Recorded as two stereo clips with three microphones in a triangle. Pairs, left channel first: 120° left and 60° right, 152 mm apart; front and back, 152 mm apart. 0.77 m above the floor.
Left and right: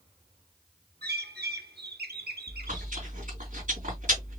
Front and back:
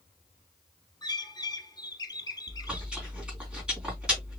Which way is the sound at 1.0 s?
65° right.